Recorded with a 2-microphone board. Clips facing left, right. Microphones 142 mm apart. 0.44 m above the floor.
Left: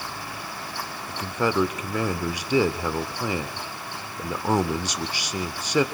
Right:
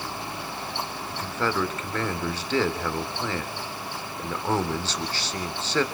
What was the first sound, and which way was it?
A man speaking, 15° left (ahead or behind).